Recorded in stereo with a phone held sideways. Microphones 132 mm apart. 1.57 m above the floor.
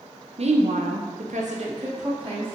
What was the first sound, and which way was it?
A woman speaking, 50° right (ahead or behind).